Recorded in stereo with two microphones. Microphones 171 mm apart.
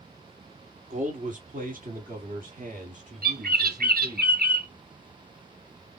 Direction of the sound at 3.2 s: 65° right (ahead or behind).